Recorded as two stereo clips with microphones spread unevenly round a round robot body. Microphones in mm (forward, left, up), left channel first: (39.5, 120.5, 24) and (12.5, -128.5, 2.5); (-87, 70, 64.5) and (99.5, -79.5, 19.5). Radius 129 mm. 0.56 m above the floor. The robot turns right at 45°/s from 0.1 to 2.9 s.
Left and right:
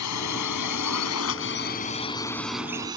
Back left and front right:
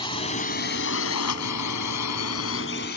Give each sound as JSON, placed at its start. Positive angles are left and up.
{"t": 0.0, "sound": "a drone", "azimuth_deg": 70}